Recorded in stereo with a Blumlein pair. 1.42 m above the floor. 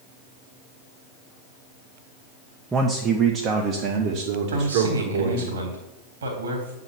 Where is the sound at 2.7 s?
15° right, 1.1 m; by 5.5 s 60° right, 2.5 m.